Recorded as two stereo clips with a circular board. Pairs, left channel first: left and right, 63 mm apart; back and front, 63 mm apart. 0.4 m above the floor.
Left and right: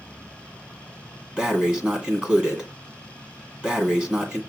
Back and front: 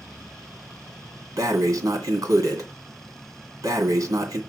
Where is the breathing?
15° right, 1.9 m.